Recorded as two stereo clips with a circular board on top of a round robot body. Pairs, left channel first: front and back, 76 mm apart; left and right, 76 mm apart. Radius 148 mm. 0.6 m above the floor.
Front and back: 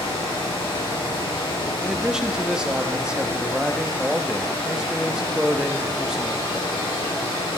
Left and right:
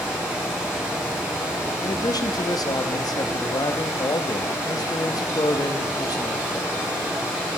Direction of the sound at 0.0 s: 10° right.